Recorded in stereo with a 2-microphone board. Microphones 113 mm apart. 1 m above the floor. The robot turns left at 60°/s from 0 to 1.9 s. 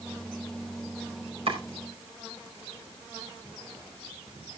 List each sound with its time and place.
1.5 s chopping: 60° right (ahead or behind), 5 m; by 1.6 s 55° right (ahead or behind), 5 m